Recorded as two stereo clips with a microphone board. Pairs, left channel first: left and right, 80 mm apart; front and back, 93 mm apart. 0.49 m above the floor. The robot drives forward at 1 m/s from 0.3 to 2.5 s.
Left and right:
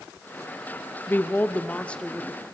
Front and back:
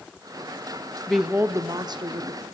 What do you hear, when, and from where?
1.1 s a woman speaking: 80° left, 0.7 m; by 2.4 s 170° left, 1.5 m